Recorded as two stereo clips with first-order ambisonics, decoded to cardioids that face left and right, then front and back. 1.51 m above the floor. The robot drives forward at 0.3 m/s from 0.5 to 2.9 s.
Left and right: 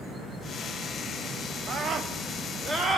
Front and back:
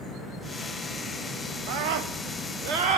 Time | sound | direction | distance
1.7 | a scream | 155° right | 0.9 m